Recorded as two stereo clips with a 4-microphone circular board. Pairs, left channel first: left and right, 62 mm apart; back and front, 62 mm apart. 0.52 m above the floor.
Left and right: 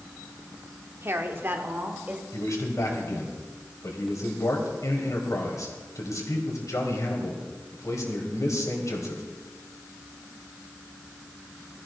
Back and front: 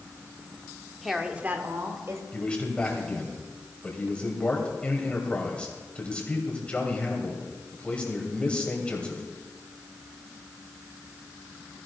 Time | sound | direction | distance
1.0 | a woman speaking | 90° right | 1.1 m
2.3 | a man speaking | 110° left | 3 m